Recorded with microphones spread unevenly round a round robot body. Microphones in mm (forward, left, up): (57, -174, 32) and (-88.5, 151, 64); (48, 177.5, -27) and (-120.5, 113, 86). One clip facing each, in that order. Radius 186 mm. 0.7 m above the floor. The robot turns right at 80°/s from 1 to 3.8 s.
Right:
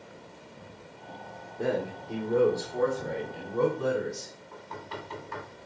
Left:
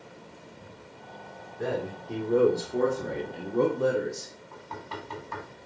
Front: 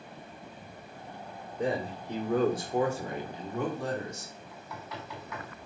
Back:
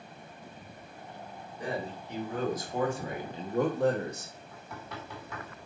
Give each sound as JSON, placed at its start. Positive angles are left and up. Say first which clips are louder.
{"t": 1.6, "sound": "a man speaking", "louder": "right 2 dB, front 5 dB", "azimuth_deg": -20, "distance_m": 1.9}
{"t": 4.5, "sound": "knocking", "louder": "even, even", "azimuth_deg": 170, "distance_m": 5.0}